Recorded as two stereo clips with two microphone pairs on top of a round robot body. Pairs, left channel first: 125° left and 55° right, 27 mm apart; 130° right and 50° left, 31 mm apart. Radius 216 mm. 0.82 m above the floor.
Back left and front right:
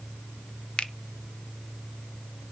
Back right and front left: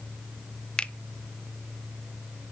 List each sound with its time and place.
0.8 s a finger snap: 175° left, 1.1 m